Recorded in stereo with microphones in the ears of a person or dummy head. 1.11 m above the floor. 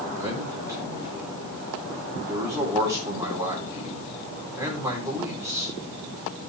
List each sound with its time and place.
0.2 s a man speaking: 15° right (ahead or behind), 3 m